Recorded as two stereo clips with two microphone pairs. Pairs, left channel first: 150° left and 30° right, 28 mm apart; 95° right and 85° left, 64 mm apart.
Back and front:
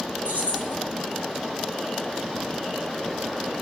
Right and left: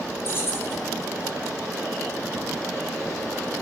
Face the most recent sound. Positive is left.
turn(degrees=-45)